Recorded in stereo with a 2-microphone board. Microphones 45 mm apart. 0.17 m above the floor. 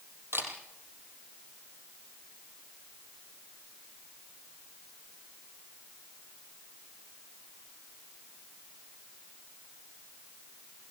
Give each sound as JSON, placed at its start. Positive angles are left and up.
{"t": 0.3, "sound": "a camera shutter", "side_deg": -60, "distance_m": 4.5}